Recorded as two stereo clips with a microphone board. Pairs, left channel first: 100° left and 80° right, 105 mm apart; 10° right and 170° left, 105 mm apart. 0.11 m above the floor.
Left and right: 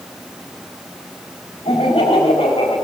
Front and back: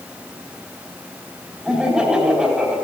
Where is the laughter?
90° left, 4.5 m.